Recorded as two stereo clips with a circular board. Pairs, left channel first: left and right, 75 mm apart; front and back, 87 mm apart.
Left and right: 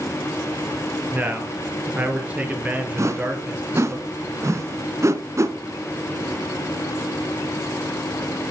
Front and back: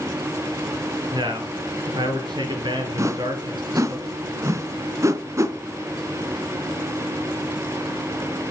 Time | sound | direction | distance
1.1 | a man speaking | 155° right | 3.5 m
3.0 | a whoosh | 130° right | 1.0 m